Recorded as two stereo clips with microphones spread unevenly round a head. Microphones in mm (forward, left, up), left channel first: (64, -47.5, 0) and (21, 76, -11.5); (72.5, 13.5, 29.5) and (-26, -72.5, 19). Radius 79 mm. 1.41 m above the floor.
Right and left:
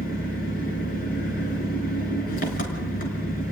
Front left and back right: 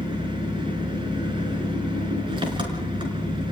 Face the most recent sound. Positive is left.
turn(degrees=-85)